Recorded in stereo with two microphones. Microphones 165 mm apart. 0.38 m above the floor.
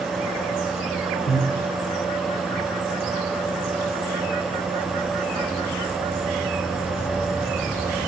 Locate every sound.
1.3 s breathing: 65° left (ahead or behind), 3 m